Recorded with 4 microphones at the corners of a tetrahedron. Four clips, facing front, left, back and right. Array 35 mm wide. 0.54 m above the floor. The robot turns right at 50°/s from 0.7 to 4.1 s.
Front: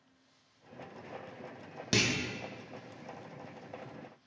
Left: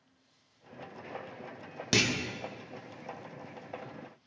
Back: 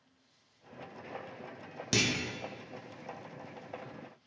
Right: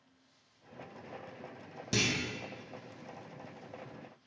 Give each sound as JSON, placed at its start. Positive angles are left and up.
{"t": 1.9, "sound": "a clunk", "azimuth_deg": 80, "distance_m": 0.5}